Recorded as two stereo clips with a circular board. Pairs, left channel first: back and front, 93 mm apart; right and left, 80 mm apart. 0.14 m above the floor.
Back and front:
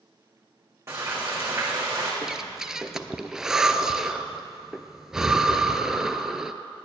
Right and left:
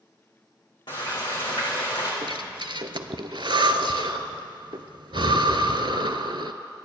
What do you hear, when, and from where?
0.9 s frying: 60° right, 3 m
2.2 s breathing: 85° left, 0.5 m